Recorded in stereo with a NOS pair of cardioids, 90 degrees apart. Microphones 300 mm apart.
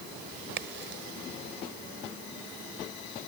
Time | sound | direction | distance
0.6 | a crack | 40° right | ?